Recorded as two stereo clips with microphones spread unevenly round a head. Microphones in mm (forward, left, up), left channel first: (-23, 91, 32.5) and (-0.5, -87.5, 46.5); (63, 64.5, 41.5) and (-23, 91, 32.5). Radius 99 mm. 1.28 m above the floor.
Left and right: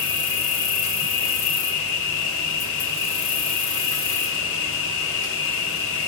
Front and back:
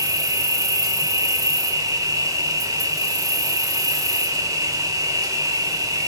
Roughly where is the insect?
Behind left.